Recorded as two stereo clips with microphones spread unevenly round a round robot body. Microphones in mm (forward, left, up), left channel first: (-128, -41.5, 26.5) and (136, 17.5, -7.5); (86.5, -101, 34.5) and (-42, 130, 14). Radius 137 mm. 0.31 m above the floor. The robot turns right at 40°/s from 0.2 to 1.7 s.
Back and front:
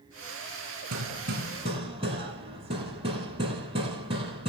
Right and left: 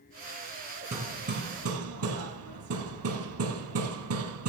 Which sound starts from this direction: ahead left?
Hammering, at 0.9 s.